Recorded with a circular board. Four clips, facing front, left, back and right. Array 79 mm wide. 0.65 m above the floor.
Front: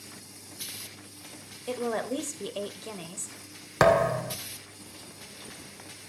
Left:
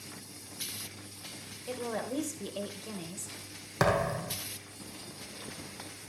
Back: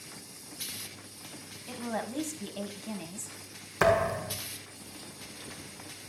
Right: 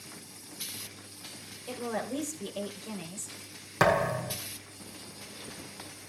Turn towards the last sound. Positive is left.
turn(degrees=-5)